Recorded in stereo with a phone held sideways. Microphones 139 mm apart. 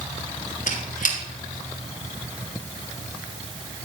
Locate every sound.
0.7 s a squeak: 70° left (ahead or behind), 2.5 m